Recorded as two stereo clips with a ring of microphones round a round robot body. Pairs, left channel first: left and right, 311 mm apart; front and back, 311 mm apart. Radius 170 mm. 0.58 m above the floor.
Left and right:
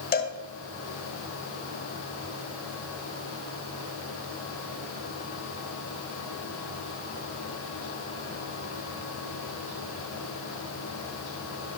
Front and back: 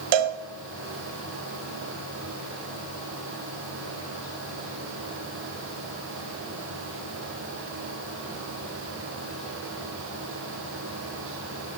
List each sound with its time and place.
0.1 s a cowbell: 160° left, 1.4 m